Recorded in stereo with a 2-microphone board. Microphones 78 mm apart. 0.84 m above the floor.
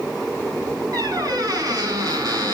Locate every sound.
0.9 s a squeak: 55° right (ahead or behind), 4 m